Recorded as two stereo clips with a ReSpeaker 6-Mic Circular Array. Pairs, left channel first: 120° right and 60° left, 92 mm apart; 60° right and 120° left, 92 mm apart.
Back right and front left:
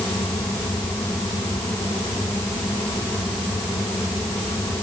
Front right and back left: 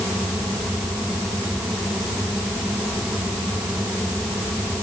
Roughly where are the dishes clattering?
I don't hear dishes clattering.